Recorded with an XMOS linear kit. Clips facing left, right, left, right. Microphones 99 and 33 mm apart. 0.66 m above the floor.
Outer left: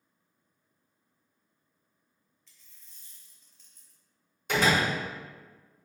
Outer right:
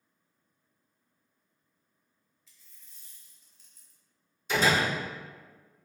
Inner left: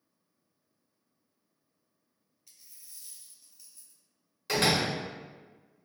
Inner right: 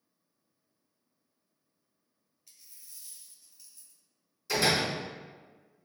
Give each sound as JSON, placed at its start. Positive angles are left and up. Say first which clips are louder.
{"t": 2.5, "sound": "a dropped coin", "louder": "even, even", "side_deg": -5, "distance_m": 1.1}
{"t": 4.5, "sound": "a door slam", "louder": "even, inner left 1 dB", "side_deg": 65, "distance_m": 1.1}